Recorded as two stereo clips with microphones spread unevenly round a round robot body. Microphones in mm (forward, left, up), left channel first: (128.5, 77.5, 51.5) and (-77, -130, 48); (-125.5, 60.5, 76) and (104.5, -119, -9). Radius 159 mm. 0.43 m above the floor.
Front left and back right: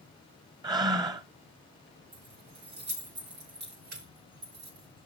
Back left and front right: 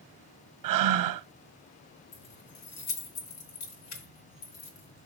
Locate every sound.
0.6 s breathing: 60° right, 0.8 m
2.1 s keys jangling: 165° left, 3.5 m